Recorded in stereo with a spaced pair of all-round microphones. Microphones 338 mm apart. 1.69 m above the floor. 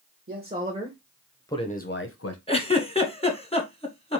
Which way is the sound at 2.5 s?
15° left (ahead or behind).